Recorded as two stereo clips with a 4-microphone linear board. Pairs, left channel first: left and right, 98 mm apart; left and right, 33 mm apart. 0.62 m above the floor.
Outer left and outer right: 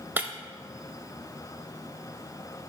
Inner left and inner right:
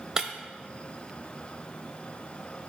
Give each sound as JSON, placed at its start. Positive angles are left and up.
{"t": 0.2, "sound": "breaking glass", "side_deg": -20, "distance_m": 0.5}